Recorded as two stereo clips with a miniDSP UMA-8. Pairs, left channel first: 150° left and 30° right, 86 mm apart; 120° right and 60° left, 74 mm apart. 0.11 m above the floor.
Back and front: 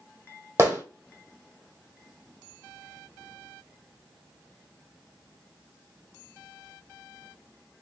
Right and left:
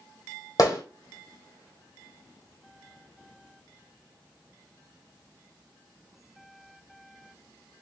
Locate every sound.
0.6 s a gunshot: 90° right, 1.4 m